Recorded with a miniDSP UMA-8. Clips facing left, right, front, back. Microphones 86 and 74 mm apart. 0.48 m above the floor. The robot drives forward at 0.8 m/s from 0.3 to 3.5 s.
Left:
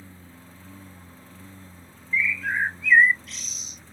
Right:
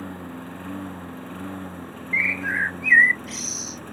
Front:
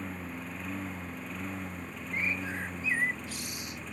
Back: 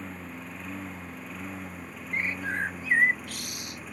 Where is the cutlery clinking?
I don't hear cutlery clinking.